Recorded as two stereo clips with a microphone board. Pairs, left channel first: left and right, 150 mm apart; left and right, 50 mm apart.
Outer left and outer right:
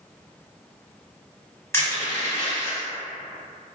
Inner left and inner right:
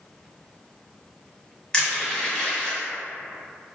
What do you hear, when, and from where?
1.7 s crushing: 20° left (ahead or behind), 1.4 m